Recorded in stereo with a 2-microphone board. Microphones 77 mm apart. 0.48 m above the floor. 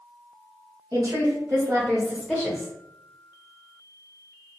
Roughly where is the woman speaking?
Right.